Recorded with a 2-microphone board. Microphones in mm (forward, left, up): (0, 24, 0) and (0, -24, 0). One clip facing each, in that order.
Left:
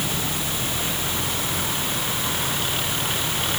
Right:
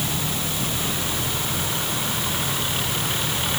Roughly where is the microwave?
I don't hear a microwave.